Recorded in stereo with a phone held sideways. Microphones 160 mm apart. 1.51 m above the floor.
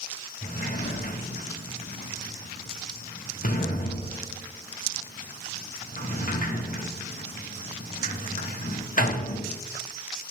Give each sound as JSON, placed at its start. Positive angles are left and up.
{"t": 0.4, "sound": "a sliding door", "side_deg": 55, "distance_m": 0.8}